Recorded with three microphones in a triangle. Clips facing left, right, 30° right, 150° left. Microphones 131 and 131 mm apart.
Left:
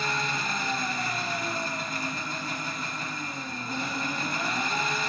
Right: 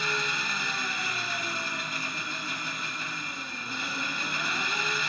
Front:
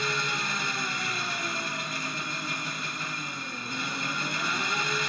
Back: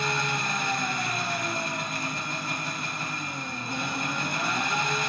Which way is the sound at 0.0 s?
130° left.